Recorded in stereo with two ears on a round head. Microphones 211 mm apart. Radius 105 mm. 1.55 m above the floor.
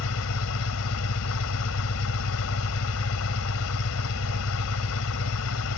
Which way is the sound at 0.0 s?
70° left (ahead or behind).